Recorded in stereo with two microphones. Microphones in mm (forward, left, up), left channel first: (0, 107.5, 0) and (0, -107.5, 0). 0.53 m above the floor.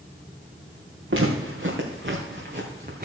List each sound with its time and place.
1.1 s footsteps: 65° right (ahead or behind), 3 m; by 3.0 s 45° right (ahead or behind), 3 m